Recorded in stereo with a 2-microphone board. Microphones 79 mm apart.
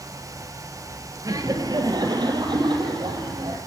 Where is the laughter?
45° right (ahead or behind), 1.9 m; by 3.6 s 70° right (ahead or behind), 4.5 m.